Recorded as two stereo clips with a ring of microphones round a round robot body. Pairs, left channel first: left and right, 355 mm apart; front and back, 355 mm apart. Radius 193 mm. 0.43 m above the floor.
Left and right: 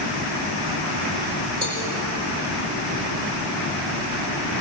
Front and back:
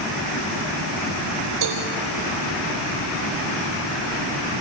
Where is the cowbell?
160° right, 5.5 m.